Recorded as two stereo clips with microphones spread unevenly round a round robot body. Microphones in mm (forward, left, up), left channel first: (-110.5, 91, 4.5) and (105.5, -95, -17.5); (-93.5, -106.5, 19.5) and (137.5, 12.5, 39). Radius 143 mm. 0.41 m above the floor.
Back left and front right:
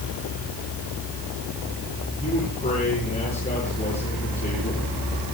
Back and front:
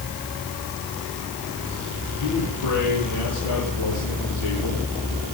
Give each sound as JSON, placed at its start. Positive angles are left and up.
{"t": 2.2, "sound": "a man speaking", "azimuth_deg": -150, "distance_m": 9.0}